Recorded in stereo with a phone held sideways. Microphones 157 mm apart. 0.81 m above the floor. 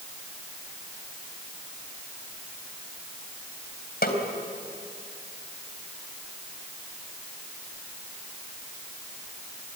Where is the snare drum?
80° left, 3 m.